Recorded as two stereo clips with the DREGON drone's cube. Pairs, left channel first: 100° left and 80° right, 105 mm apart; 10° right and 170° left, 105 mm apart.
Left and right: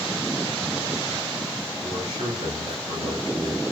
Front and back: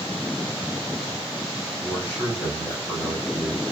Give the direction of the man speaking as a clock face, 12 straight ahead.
2 o'clock.